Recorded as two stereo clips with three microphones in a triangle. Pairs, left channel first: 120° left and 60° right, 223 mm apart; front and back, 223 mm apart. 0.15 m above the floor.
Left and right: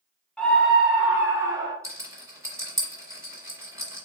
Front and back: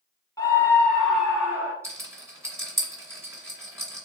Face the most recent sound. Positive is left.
turn(degrees=-115)